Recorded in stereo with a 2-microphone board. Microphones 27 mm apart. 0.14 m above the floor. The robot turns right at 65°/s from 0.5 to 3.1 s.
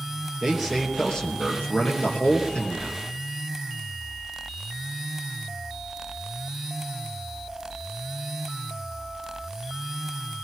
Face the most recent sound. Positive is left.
turn(degrees=160)